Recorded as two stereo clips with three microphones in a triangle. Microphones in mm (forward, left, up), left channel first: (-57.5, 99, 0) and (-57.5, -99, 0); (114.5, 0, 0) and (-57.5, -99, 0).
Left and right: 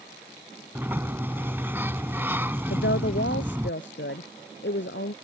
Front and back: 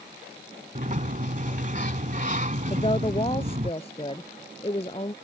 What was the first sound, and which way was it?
A sliding door, 165° right.